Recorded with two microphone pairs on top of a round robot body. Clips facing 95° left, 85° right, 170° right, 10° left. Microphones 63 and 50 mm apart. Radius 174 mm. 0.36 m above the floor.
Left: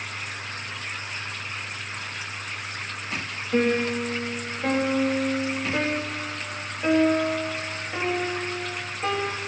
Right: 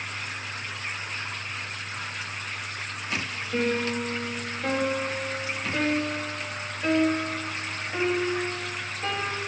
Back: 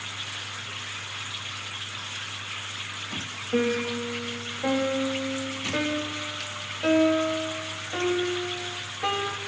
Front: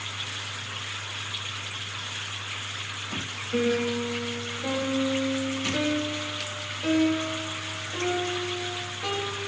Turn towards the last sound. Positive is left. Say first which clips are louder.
# left 4 dB, even
turn(degrees=170)